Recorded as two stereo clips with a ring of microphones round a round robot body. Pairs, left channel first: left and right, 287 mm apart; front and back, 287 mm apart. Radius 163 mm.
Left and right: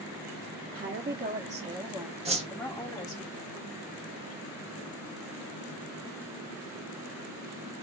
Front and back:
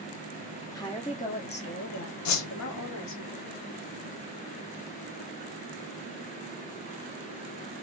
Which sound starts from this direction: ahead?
A whoosh, at 2.2 s.